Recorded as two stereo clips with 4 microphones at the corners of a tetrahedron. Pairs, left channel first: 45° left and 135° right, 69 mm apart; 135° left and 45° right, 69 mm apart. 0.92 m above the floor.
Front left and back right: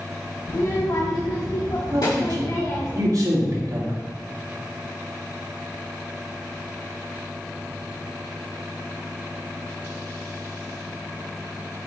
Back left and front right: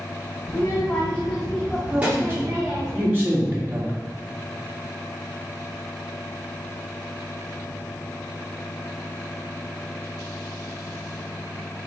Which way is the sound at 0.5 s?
90° left.